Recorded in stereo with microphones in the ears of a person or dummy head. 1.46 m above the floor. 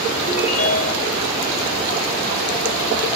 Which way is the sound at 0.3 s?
40° left (ahead or behind).